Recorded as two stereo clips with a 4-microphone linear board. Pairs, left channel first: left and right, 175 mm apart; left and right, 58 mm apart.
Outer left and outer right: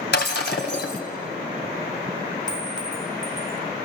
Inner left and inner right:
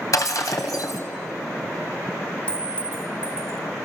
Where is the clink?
25° left (ahead or behind), 1.1 m.